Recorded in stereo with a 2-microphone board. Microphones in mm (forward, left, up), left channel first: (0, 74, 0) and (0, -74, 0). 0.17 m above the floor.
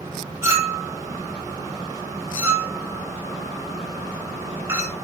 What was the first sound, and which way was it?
A clink, 20° right (ahead or behind).